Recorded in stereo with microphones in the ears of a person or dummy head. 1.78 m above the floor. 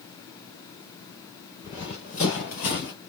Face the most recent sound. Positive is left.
turn(degrees=45)  # may be behind; listen again after turning